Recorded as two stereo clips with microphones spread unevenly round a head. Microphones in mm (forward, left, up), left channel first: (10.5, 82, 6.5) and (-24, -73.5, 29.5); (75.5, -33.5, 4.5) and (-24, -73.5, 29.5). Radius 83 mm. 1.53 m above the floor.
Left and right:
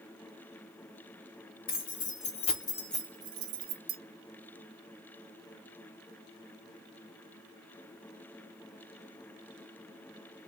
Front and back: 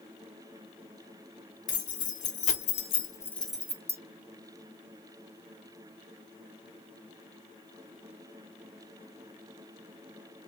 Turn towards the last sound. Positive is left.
turn(degrees=-100)